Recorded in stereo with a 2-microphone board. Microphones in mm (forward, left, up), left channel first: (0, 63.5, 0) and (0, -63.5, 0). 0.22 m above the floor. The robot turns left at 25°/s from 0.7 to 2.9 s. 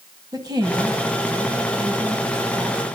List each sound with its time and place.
0.3 s a woman speaking: 65° right, 1.6 m; by 2.8 s 120° right, 1.6 m